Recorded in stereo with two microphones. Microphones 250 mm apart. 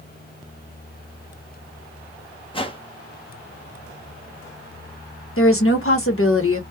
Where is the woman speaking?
60° left (ahead or behind), 1.2 m.